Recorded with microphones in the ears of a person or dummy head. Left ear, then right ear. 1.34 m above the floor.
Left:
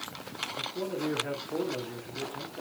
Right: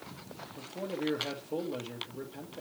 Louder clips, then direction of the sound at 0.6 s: Left 2 dB; 65° right (ahead or behind).